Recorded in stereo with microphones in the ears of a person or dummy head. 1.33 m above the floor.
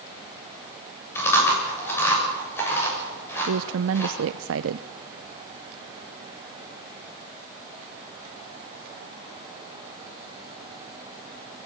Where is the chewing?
20° left (ahead or behind), 7.5 m.